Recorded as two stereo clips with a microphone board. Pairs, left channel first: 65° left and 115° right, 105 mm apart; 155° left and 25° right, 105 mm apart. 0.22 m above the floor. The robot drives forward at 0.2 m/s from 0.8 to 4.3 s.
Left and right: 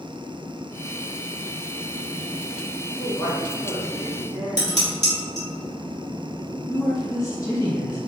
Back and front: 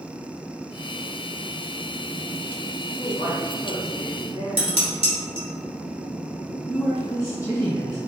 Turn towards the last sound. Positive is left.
turn(degrees=110)